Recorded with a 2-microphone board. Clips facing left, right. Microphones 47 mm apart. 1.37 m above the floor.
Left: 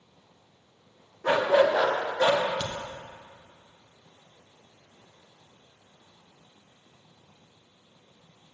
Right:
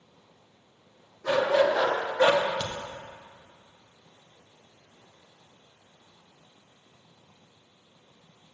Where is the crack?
15° right (ahead or behind), 1.1 m.